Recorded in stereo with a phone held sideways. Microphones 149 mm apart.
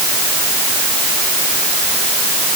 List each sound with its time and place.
Only background noise.